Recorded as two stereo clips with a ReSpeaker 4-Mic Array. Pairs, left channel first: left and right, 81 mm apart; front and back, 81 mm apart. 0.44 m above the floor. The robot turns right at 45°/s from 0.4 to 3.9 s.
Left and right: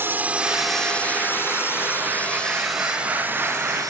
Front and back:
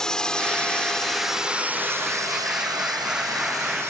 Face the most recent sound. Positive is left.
turn(degrees=-125)